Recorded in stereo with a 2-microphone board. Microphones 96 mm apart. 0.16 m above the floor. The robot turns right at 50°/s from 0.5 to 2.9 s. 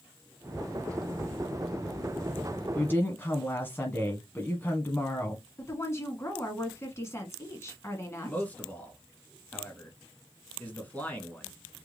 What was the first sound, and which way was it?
A woman speaking, 20° left (ahead or behind).